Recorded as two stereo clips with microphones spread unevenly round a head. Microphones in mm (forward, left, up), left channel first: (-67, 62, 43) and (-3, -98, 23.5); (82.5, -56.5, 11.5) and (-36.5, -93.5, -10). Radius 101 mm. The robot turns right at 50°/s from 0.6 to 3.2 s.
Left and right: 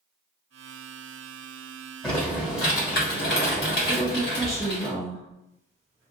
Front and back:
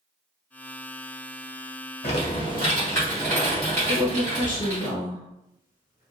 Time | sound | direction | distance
2.0 | typing on a keyboard | 30° left | 1.1 m
3.9 | a woman speaking | 5° left | 1.3 m